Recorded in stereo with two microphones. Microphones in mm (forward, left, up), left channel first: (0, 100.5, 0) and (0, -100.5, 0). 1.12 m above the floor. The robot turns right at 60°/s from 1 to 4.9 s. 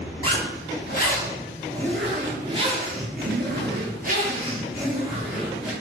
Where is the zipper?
120° left, 0.8 m; by 5.7 s 5° right, 0.8 m.